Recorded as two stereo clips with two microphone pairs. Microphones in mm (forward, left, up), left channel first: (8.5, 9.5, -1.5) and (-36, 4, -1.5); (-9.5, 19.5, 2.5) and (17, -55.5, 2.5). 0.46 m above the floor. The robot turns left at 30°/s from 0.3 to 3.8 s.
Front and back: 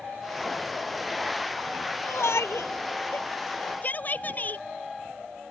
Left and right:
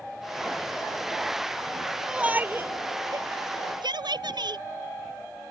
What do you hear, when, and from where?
2.0 s a shout: 10° left; by 4.6 s 45° right